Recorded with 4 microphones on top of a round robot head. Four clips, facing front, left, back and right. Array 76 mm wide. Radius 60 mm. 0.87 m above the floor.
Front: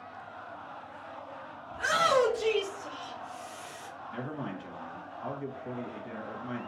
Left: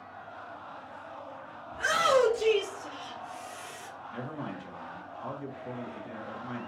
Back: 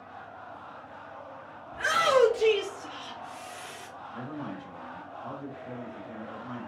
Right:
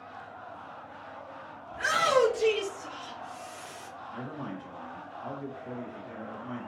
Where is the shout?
145° right, 2.5 m; by 3.9 s 165° left, 1.8 m.